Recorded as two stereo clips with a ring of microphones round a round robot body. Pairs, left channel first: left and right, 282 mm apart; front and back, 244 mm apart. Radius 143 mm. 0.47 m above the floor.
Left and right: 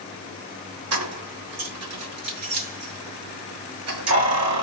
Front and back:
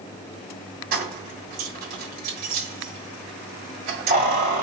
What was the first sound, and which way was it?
Keys jangling, 125° right.